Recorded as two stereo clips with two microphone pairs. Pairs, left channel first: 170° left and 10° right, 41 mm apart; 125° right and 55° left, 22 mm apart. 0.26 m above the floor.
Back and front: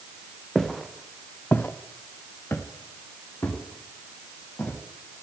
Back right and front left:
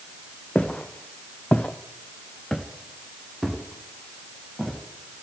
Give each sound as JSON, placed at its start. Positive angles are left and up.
{"t": 0.6, "sound": "footsteps", "azimuth_deg": -105, "distance_m": 1.2}